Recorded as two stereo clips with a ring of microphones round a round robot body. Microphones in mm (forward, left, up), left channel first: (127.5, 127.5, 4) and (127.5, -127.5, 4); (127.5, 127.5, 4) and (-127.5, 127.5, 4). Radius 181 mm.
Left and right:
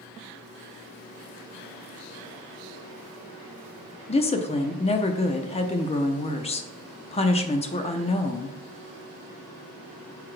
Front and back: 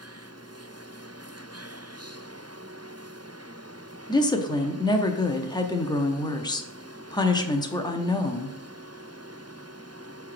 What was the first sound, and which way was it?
A woman speaking, 55° left.